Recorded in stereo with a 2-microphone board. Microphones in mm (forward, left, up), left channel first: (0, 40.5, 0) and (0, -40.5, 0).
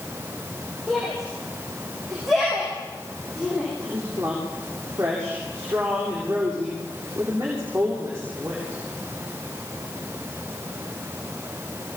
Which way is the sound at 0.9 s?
Centre (ahead or behind).